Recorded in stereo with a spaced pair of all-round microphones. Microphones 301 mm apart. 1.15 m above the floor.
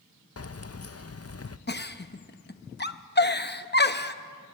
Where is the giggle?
35° left (ahead or behind), 0.7 m.